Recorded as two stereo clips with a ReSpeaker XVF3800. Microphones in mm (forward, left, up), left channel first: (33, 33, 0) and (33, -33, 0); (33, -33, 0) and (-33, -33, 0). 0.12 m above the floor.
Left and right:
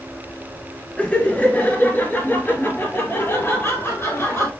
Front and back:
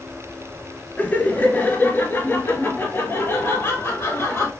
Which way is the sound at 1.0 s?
40° left.